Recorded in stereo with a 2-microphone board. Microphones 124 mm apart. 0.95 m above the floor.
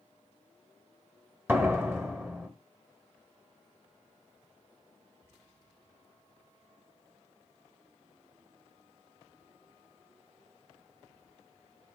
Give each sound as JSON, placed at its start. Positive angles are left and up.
{"t": 1.5, "sound": "a door slam", "side_deg": -15, "distance_m": 1.2}